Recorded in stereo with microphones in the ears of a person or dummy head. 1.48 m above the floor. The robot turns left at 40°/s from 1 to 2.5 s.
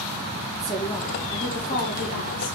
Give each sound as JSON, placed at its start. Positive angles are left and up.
{"t": 0.5, "sound": "a woman speaking", "azimuth_deg": 160, "distance_m": 2.0}